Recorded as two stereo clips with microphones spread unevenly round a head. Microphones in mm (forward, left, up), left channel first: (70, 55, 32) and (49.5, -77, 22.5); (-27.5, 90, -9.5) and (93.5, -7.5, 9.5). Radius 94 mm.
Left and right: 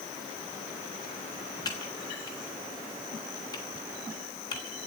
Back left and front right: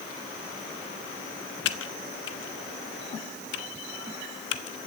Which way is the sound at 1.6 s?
150° left.